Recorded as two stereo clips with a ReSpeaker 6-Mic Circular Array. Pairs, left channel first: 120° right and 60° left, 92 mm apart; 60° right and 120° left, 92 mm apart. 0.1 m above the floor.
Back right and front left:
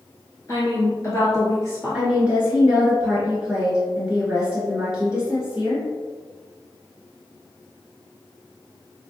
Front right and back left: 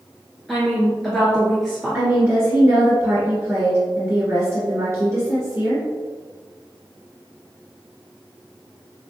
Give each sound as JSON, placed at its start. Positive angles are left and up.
{"t": 0.5, "sound": "a woman speaking", "azimuth_deg": -145, "distance_m": 1.5}
{"t": 1.9, "sound": "a woman speaking", "azimuth_deg": 125, "distance_m": 1.7}